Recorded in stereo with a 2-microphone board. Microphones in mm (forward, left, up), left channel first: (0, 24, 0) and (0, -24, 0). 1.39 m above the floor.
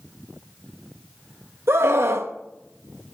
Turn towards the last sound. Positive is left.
turn(degrees=-65)  # may be behind; listen again after turning